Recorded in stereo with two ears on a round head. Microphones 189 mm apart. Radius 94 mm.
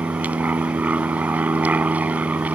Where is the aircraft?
5° right (ahead or behind).